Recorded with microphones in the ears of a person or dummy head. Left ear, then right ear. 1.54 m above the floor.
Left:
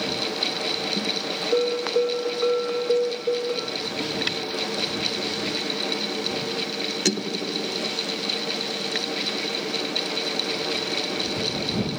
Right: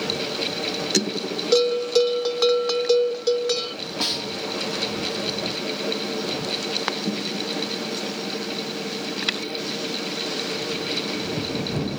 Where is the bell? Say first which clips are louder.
Right 4 dB; 70° right (ahead or behind).